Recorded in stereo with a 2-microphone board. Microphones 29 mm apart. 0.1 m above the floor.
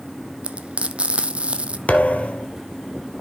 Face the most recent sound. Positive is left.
turn(degrees=60)  # may be behind; listen again after turning